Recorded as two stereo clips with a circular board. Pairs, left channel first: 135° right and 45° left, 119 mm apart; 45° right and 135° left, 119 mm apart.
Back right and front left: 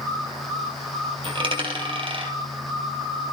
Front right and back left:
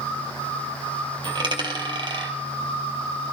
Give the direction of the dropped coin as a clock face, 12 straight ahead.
9 o'clock.